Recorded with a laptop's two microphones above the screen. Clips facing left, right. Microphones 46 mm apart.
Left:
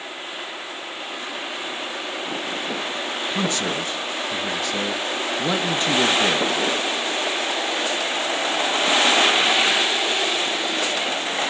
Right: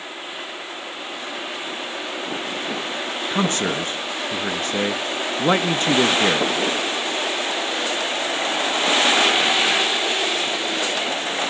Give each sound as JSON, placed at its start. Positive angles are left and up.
{"t": 3.3, "sound": "a man speaking", "side_deg": -45, "distance_m": 1.1}